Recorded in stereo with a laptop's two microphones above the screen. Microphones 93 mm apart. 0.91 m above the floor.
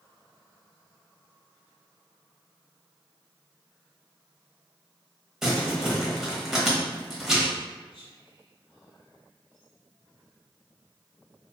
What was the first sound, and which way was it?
Crumpling, 5° right (ahead or behind).